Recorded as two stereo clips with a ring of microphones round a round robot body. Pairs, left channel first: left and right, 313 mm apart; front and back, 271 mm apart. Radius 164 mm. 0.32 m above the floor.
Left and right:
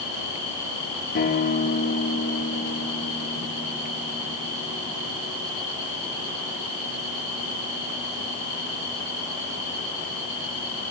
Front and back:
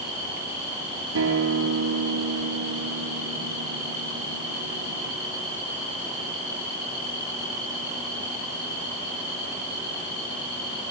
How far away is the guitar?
About 6.5 m.